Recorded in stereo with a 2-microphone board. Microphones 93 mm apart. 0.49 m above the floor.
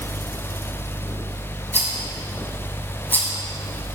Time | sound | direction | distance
1.7 | a rattle | 20° left (ahead or behind) | 1.4 m